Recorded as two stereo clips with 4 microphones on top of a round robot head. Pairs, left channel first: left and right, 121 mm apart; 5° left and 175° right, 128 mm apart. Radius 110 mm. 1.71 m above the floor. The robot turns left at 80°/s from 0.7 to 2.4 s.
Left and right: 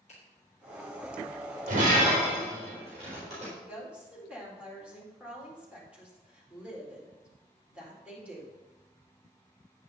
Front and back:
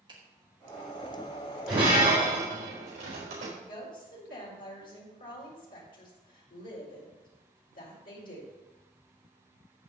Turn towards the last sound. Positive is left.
turn(degrees=-10)